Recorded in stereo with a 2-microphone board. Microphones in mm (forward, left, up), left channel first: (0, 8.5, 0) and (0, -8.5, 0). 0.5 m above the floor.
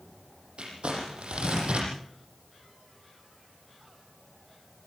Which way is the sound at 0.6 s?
90° right.